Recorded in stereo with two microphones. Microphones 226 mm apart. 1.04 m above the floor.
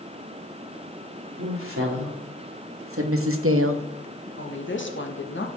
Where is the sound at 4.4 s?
60° left (ahead or behind), 1.4 m.